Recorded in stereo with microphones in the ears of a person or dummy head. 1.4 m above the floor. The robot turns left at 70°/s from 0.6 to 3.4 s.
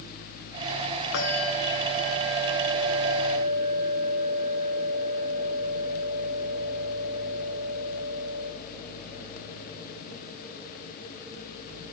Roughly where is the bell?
Behind left.